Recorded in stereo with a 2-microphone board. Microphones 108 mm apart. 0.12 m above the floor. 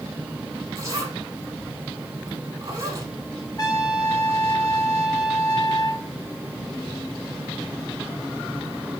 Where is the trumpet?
35° left (ahead or behind), 1.6 m.